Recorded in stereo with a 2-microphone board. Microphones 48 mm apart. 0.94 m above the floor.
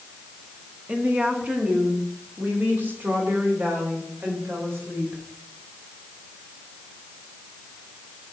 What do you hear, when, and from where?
0.9 s a woman speaking: 25° right (ahead or behind), 1.3 m; by 5.2 s 50° right (ahead or behind), 3.5 m